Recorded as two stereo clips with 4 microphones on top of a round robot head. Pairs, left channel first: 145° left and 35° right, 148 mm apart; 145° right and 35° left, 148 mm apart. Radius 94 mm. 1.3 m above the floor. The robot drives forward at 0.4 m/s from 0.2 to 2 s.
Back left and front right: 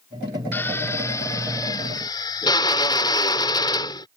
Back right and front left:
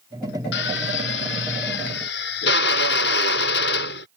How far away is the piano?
No piano in this recording.